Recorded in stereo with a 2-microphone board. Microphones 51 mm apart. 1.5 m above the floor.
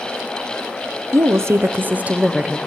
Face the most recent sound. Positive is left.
turn(degrees=-10)  # may be behind; listen again after turning